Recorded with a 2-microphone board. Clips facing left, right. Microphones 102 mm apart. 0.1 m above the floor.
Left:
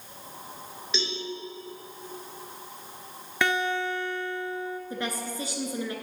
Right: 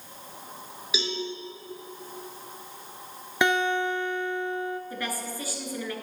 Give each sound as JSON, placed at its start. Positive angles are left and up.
{"t": 0.9, "sound": "a cowbell", "side_deg": -5, "distance_m": 1.6}
{"t": 3.4, "sound": "a guitar", "side_deg": -20, "distance_m": 0.6}
{"t": 4.9, "sound": "a woman speaking", "side_deg": 20, "distance_m": 1.1}